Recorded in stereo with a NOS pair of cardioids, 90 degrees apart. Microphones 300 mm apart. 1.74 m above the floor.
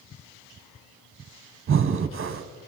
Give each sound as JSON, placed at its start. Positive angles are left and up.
{"t": 1.7, "sound": "breathing", "azimuth_deg": -40, "distance_m": 1.4}